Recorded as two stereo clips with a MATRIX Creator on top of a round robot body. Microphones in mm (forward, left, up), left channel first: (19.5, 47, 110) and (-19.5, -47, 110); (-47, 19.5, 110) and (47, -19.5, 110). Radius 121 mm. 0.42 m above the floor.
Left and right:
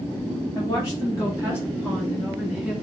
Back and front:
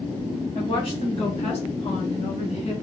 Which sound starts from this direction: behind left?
A woman speaking, at 0.6 s.